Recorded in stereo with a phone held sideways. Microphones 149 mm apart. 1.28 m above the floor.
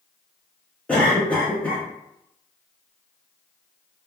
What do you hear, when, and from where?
0.9 s a cough: 10° left (ahead or behind), 0.6 m